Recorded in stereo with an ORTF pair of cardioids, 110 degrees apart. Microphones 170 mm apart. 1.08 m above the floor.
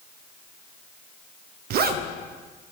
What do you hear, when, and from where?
1.7 s a zipper: 65° right, 0.6 m